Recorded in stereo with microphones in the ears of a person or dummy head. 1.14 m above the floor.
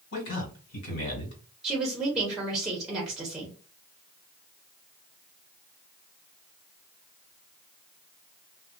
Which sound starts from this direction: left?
A man speaking, at 0.1 s.